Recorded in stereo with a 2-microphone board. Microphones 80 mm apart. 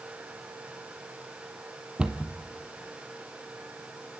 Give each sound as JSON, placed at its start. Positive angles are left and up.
{"t": 2.0, "sound": "a cupboard door", "side_deg": -15, "distance_m": 1.6}